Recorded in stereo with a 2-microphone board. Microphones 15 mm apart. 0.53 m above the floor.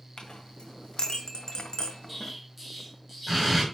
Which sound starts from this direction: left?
A clink, at 0.2 s.